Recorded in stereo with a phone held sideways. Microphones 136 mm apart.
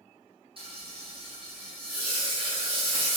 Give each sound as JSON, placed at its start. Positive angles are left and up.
{"t": 0.6, "sound": "frying", "side_deg": -45, "distance_m": 1.4}